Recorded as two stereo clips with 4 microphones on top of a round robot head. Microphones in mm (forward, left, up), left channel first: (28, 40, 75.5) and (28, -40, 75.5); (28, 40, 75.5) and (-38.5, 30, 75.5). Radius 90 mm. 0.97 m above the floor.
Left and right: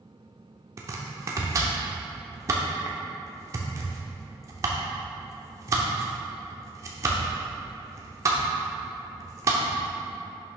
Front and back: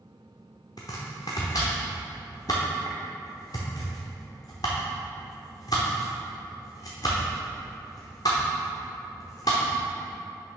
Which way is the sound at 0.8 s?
40° right.